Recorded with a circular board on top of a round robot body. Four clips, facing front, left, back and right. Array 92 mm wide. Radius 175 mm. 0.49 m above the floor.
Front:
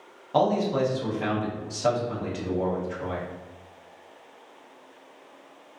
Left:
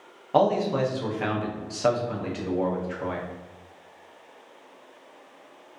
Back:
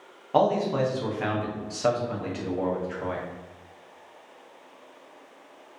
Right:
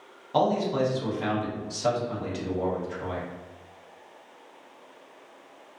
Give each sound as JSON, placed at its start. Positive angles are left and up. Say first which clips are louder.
{"t": 0.3, "sound": "a man speaking", "louder": "left 2 dB, even", "azimuth_deg": 120, "distance_m": 0.8}